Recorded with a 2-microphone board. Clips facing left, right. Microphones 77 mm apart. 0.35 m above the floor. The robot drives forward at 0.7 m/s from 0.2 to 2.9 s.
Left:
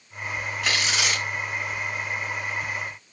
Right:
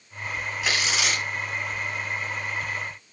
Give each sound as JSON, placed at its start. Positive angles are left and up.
{"t": 0.6, "sound": "tearing paper", "side_deg": -5, "distance_m": 2.5}